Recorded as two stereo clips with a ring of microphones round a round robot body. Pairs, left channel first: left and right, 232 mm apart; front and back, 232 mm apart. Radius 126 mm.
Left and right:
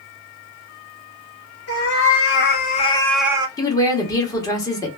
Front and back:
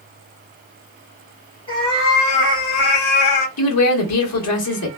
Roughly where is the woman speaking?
Ahead.